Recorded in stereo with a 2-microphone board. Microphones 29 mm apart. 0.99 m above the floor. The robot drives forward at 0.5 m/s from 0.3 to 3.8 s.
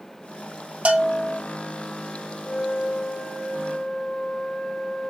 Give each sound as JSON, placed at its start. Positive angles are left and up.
{"t": 0.8, "sound": "a bell", "side_deg": -40, "distance_m": 0.8}
{"t": 2.5, "sound": "a flute", "side_deg": 40, "distance_m": 0.5}